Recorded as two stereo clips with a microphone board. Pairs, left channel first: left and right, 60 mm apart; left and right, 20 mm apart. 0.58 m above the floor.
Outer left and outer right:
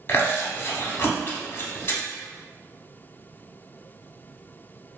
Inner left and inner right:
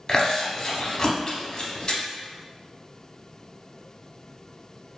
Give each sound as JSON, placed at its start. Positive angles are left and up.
{"t": 0.1, "sound": "chewing", "side_deg": 40, "distance_m": 0.6}